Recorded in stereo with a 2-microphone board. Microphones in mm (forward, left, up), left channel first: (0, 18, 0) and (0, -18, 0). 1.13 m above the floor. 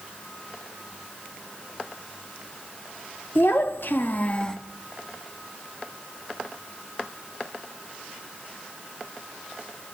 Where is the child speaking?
75° left (ahead or behind), 1.4 m; by 4.6 s 10° left (ahead or behind), 0.8 m.